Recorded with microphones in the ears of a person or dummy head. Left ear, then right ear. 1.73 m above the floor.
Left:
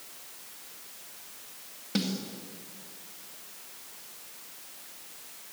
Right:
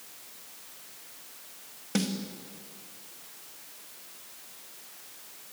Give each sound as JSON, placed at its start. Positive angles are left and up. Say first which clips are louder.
{"t": 1.9, "sound": "a snare drum", "louder": "even", "side_deg": -25, "distance_m": 2.5}